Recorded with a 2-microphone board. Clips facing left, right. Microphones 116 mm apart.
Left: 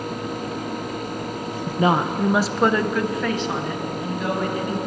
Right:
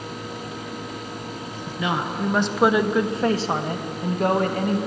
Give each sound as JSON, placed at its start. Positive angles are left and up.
{"t": 1.7, "sound": "a woman speaking", "side_deg": 50, "distance_m": 0.9}